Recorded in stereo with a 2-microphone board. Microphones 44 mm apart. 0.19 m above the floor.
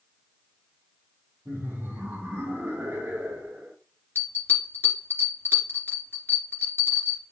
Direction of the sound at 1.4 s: 75° right (ahead or behind).